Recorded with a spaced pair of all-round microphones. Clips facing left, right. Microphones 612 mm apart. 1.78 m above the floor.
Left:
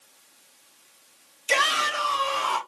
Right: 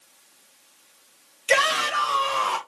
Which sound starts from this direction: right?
A shout, at 1.5 s.